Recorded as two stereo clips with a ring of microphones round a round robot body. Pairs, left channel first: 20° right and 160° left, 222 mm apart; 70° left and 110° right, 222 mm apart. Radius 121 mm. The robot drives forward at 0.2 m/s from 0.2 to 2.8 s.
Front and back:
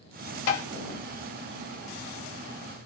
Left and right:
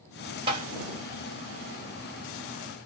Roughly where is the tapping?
Ahead right.